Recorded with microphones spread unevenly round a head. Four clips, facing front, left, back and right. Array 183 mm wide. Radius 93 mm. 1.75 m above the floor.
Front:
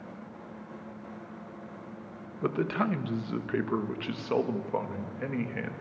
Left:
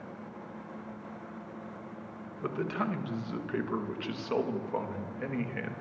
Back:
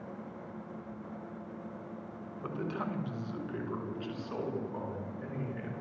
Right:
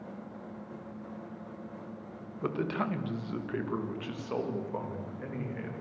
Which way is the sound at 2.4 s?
10° right.